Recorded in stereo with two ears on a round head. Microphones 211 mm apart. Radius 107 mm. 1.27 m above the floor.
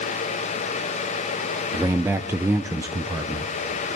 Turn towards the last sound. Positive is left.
turn(degrees=-10)  # may be behind; listen again after turning